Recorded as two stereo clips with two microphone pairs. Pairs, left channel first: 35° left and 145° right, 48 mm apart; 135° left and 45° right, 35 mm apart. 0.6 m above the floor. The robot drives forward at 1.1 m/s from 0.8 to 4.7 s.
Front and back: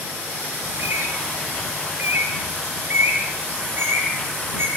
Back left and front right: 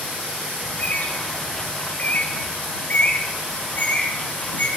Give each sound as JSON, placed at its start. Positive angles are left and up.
{"t": 0.6, "sound": "a bird", "azimuth_deg": 175, "distance_m": 3.0}